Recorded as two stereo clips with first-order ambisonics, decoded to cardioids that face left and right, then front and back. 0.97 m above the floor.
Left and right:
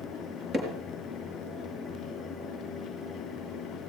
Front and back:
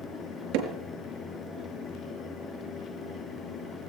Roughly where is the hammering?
Behind.